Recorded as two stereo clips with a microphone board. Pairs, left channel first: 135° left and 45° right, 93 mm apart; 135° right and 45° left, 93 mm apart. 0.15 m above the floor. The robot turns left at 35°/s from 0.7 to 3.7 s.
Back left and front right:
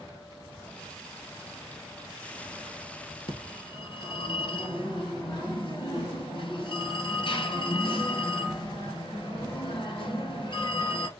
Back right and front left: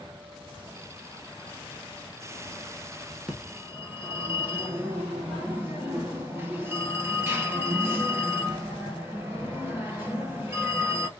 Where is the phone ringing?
130° left, 2 m; by 11.1 s 115° left, 2 m.